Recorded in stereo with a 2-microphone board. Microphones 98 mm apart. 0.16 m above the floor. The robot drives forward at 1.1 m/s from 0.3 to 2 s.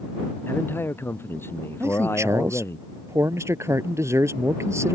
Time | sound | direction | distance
0.5 | a man speaking | 20° left (ahead or behind) | ?
1.8 | a man speaking | 30° right (ahead or behind) | ?